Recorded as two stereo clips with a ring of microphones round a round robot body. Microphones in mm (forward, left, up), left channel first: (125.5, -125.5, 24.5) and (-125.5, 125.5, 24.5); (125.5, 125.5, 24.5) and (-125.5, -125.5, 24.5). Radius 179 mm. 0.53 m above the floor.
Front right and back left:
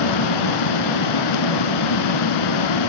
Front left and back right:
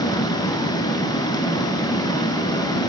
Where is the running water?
35° right, 0.9 m.